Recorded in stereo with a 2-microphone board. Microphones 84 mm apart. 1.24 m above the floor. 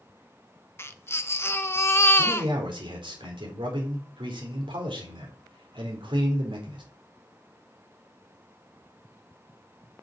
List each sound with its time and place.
0.8 s a baby crying: 30° left (ahead or behind), 0.9 m
2.2 s a man speaking: 85° right, 5 m